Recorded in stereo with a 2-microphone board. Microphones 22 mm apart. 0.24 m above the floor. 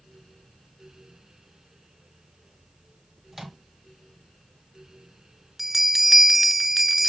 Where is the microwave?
15° right (ahead or behind), 1.0 m.